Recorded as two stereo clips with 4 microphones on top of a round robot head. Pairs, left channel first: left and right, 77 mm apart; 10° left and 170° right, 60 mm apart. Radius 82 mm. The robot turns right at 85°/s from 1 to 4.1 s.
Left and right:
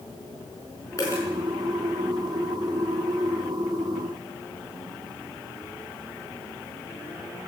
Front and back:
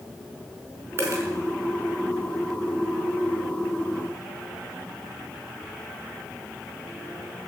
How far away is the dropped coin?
About 4.5 m.